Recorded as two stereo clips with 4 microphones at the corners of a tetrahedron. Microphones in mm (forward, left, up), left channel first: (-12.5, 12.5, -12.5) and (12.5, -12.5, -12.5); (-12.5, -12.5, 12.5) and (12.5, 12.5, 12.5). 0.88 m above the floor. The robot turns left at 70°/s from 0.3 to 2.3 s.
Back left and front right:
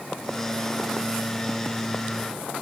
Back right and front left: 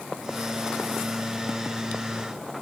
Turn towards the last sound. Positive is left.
No sound to turn to.